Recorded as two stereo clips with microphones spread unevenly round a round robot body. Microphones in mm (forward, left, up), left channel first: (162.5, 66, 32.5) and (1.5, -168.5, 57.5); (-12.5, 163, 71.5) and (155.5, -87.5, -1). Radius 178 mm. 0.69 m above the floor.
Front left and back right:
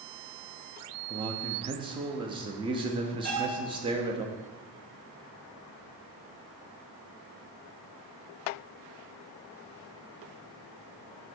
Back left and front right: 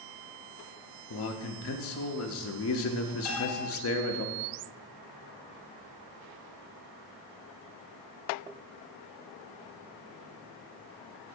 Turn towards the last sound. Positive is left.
turn(degrees=175)